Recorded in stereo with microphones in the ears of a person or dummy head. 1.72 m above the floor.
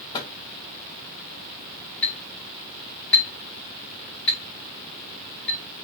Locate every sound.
0.1 s a microwave: 20° left (ahead or behind), 0.7 m
2.0 s a clink: 5° left (ahead or behind), 0.8 m